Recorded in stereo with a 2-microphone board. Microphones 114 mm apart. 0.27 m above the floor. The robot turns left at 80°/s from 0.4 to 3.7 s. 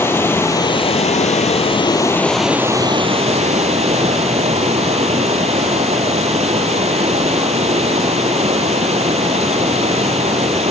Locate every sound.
0.0 s running water: 160° left, 0.8 m; by 10.7 s 105° right, 0.8 m